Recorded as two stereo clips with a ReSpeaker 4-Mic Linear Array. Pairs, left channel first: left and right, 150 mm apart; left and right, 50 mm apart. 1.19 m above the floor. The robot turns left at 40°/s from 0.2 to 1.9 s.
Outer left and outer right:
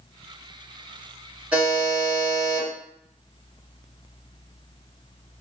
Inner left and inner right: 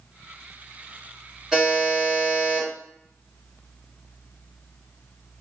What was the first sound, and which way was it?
A buzzer, 10° right (ahead or behind).